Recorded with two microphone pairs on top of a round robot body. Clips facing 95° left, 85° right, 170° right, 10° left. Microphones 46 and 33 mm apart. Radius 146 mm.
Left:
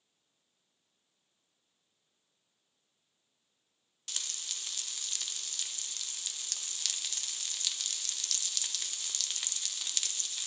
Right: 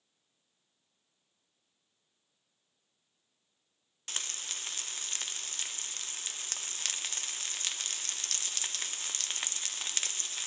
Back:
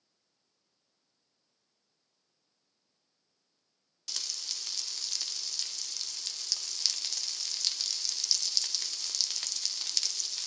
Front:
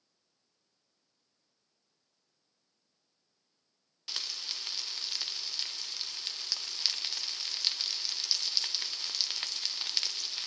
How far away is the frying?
About 0.9 m.